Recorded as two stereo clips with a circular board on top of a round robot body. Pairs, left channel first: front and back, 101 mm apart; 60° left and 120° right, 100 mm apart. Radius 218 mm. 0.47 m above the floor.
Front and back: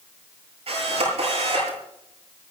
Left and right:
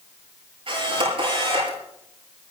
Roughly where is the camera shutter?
Behind right.